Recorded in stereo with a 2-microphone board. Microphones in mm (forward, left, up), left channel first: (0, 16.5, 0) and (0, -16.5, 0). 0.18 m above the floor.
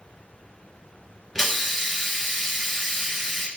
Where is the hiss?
10° left (ahead or behind), 0.7 m.